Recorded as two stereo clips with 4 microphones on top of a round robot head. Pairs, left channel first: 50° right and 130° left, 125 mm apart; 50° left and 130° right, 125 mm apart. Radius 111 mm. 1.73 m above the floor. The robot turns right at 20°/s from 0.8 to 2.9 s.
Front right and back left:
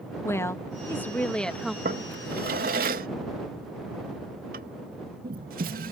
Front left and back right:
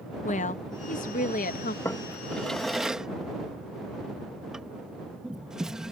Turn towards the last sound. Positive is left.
turn(degrees=145)